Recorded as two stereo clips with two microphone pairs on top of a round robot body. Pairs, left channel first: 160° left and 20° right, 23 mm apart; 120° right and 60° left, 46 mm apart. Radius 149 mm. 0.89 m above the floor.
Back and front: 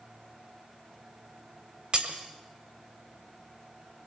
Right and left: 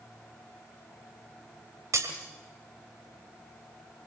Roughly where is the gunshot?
No gunshot in this recording.